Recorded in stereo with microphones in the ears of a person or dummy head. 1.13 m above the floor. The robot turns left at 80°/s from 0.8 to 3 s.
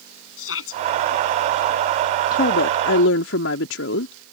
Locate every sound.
0.4 s a shout: 90° left; by 0.8 s 85° left
2.3 s a woman speaking: 135° left; by 4.1 s 80° left